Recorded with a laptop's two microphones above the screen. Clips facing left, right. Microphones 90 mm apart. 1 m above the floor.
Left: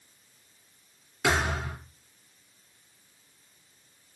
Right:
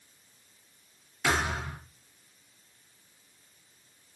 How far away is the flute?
I don't hear a flute.